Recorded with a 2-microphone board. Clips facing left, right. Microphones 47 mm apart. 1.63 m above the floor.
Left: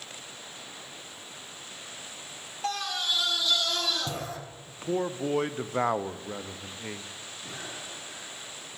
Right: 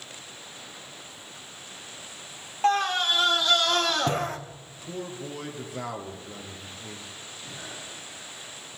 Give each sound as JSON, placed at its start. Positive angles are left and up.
{"t": 2.6, "sound": "a scream", "side_deg": -35, "distance_m": 0.9}
{"t": 4.7, "sound": "a man speaking", "side_deg": 40, "distance_m": 0.9}
{"t": 7.4, "sound": "breathing", "side_deg": 75, "distance_m": 4.5}